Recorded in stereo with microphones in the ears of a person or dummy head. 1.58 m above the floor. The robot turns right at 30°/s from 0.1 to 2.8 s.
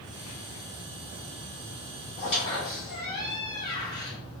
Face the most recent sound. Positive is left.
turn(degrees=25)  # may be behind; listen again after turning